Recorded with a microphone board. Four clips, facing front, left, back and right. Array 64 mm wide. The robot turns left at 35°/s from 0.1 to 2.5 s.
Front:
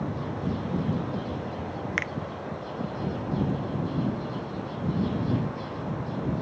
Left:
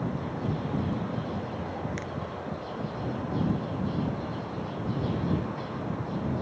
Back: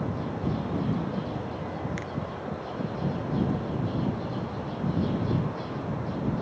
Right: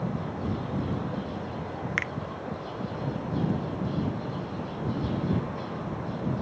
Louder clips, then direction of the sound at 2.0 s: Right 6 dB, front 6 dB; 50° right.